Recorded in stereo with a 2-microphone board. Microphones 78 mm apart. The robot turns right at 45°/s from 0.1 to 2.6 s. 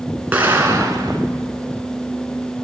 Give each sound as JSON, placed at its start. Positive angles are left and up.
{"t": 0.3, "sound": "an explosion", "azimuth_deg": -160, "distance_m": 1.0}